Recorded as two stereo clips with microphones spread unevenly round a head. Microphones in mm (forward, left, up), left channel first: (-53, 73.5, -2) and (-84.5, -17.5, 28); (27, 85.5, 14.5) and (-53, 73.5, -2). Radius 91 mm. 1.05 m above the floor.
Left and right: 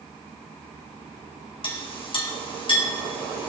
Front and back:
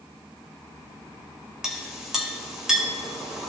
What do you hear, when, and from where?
1.6 s a clink: 105° left, 3.5 m